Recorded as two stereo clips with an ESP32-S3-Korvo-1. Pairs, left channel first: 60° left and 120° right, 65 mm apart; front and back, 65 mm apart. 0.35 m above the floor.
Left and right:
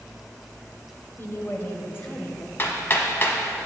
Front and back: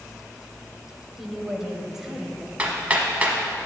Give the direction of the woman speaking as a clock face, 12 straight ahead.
9 o'clock.